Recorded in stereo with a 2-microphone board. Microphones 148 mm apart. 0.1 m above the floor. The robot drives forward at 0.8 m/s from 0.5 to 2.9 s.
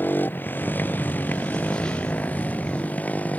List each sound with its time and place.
0.0 s a motorcycle: 10° left (ahead or behind)